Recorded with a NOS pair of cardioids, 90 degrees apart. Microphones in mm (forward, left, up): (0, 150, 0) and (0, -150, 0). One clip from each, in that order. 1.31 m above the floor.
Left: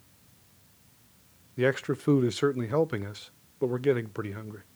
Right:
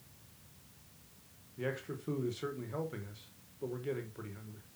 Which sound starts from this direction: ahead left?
A man speaking, at 1.6 s.